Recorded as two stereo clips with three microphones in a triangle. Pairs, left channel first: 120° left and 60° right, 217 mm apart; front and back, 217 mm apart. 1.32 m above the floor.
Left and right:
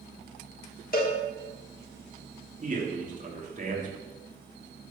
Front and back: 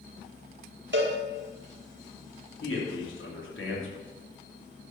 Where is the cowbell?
160° left, 1.5 m.